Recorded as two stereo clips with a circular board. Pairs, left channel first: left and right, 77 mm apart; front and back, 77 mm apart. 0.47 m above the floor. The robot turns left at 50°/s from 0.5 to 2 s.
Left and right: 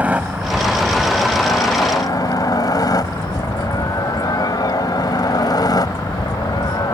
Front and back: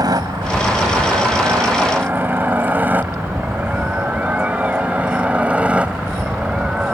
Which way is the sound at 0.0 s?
160° right.